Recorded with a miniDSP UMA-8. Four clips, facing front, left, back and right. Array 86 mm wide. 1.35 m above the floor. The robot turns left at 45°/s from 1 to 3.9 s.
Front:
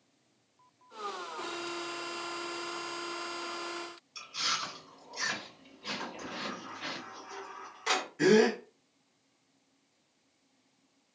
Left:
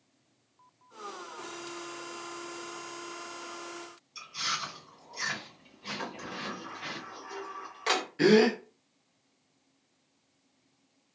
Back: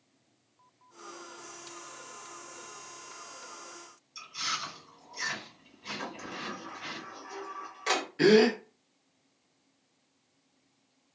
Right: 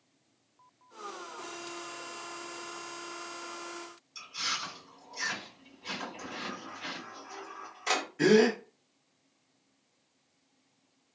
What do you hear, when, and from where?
4.2 s chewing: 10° left, 1.6 m
6.0 s a sliding door: 95° left, 1.5 m
8.2 s a gasp: 145° left, 0.7 m